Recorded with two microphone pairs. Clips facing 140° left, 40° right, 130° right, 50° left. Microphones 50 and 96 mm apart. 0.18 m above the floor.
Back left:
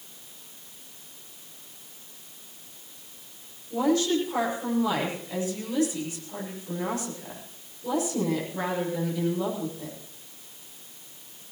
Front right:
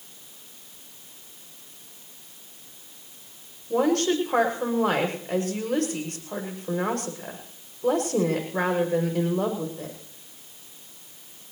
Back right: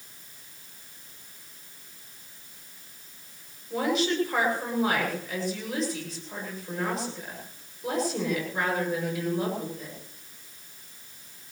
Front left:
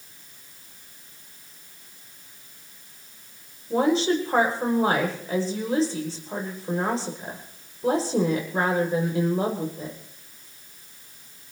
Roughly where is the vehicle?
No vehicle in this recording.